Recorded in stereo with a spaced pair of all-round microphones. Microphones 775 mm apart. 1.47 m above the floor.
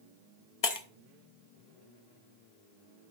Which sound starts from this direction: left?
Breaking glass, at 0.6 s.